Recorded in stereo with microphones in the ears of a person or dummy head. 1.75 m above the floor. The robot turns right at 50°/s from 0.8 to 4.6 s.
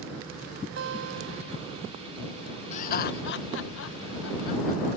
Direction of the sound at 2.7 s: 40° left (ahead or behind).